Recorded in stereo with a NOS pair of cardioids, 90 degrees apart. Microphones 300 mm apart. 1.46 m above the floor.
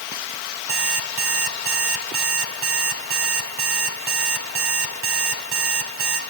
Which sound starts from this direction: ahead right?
An alarm clock, at 0.7 s.